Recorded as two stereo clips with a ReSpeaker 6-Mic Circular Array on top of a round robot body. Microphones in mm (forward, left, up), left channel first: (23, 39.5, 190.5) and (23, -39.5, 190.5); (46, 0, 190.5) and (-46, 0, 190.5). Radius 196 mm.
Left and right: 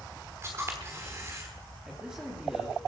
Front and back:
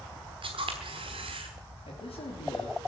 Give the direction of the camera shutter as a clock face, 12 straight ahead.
5 o'clock.